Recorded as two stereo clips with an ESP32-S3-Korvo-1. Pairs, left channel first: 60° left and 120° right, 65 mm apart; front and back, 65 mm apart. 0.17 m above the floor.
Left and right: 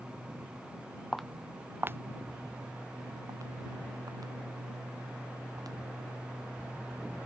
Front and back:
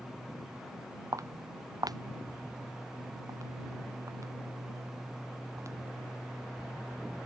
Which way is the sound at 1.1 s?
145° left.